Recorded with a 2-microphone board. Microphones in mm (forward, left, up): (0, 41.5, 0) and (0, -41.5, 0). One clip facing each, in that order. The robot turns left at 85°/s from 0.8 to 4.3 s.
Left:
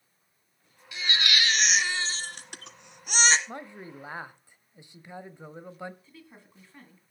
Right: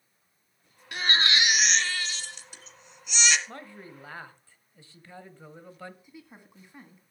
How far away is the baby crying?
About 1.2 m.